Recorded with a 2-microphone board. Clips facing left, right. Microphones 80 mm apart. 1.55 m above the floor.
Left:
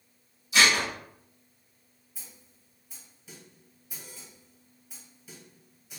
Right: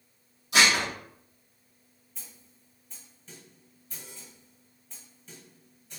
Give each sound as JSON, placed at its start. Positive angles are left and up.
{"t": 0.5, "sound": "dishes clattering", "side_deg": -65, "distance_m": 1.5}
{"t": 2.1, "sound": "a snare drum", "side_deg": 10, "distance_m": 1.5}